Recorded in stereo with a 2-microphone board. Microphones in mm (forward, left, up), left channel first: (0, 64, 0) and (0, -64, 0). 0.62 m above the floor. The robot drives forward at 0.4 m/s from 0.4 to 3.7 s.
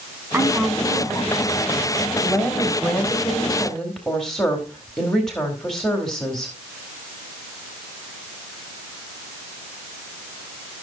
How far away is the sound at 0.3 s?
About 4 m.